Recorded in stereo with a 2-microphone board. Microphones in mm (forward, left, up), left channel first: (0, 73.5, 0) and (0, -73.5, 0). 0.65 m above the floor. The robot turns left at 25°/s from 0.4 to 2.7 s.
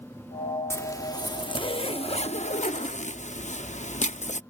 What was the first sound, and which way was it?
A zipper, 160° left.